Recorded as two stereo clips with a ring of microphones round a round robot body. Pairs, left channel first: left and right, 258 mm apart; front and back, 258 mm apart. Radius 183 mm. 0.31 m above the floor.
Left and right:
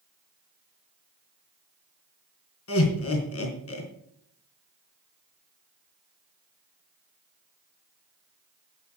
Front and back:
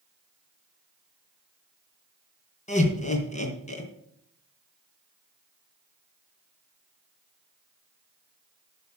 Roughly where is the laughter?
Ahead left.